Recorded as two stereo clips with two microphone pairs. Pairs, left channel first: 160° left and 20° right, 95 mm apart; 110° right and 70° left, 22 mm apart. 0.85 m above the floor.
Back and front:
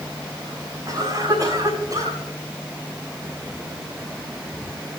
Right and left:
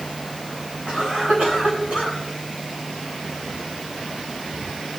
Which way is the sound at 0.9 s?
30° left.